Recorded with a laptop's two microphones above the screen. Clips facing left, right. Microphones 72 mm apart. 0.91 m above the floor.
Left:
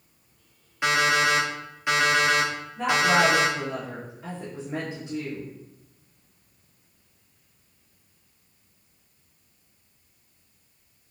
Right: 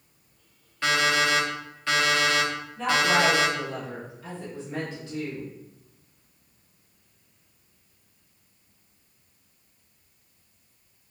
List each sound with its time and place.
0.8 s an alarm clock: 15° left (ahead or behind), 0.8 m
2.8 s a woman speaking: 20° left (ahead or behind), 1.1 m